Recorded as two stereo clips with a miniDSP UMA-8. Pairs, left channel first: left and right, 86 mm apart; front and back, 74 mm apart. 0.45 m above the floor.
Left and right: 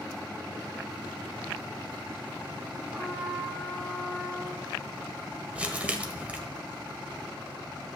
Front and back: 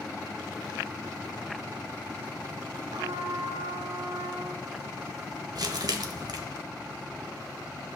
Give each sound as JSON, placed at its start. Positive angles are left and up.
{"t": 2.9, "sound": "a trumpet", "azimuth_deg": -170, "distance_m": 2.0}
{"t": 5.5, "sound": "crumpling", "azimuth_deg": -165, "distance_m": 1.2}